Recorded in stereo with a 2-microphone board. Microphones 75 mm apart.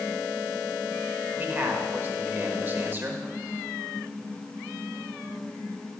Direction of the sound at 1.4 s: 30° right (ahead or behind).